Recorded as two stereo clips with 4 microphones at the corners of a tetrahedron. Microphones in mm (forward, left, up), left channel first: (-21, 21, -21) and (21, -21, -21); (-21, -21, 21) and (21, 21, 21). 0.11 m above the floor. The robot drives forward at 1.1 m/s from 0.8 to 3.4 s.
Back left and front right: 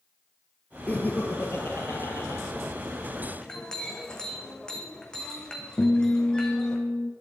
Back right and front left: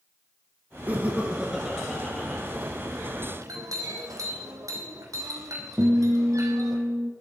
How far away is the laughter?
About 2.0 m.